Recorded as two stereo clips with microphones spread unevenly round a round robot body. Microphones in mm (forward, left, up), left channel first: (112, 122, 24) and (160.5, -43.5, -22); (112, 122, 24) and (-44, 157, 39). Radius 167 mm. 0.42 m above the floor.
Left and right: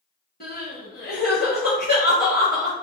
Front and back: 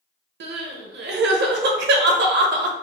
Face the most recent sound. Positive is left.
turn(degrees=175)